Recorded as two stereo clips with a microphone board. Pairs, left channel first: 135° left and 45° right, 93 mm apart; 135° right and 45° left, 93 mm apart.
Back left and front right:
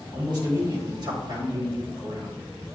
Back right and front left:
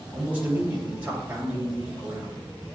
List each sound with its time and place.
0.1 s a man speaking: 25° right, 2.5 m